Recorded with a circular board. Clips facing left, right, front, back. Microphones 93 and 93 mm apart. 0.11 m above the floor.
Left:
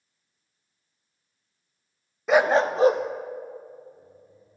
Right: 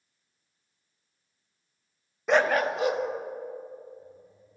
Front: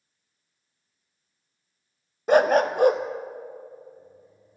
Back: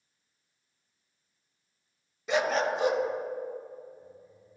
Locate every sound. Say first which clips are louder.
2.3 s a dog barking: left 4 dB, front 8 dB; straight ahead, 0.5 m; by 4.6 s 50° left, 3.5 m